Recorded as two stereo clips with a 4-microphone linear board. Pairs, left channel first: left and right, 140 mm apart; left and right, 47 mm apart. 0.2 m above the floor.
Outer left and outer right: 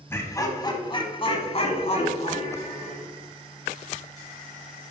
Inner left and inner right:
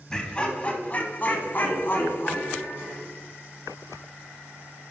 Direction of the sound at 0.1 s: 15° left (ahead or behind).